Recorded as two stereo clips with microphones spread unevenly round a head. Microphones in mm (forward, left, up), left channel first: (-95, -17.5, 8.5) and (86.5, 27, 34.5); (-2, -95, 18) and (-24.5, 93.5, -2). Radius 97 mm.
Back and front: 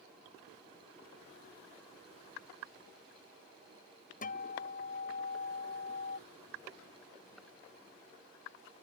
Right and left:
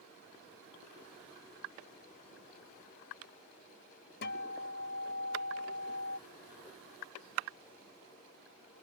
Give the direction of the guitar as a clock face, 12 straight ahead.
4 o'clock.